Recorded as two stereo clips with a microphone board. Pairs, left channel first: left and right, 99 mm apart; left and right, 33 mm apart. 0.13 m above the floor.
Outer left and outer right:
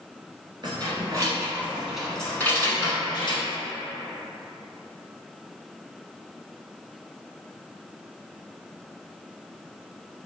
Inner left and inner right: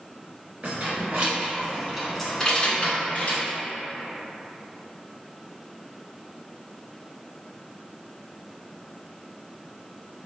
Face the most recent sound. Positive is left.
turn(degrees=50)  # may be behind; listen again after turning